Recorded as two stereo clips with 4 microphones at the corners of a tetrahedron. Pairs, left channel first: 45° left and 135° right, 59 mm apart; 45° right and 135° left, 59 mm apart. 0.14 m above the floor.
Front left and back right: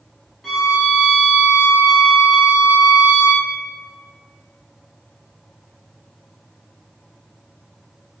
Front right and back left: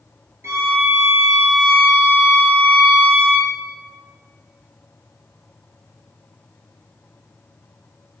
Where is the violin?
135° left, 0.7 m.